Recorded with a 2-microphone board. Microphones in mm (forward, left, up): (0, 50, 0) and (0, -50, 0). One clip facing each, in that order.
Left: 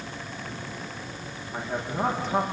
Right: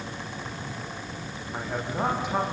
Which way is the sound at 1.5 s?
10° right (ahead or behind).